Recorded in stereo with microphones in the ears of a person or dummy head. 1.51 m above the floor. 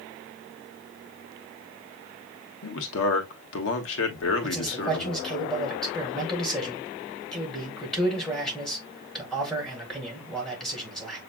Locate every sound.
2.6 s a man speaking: 75° left (ahead or behind), 1.4 m
4.4 s a man speaking: 5° left (ahead or behind), 3.5 m